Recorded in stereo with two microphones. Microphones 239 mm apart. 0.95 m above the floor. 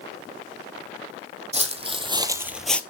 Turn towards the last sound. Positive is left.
turn(degrees=5)  # may be behind; listen again after turning